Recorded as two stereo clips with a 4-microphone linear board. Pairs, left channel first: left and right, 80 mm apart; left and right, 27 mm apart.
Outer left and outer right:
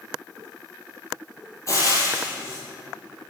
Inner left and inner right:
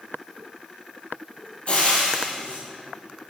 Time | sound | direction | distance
1.7 | frying | 40° left (ahead or behind) | 2.5 m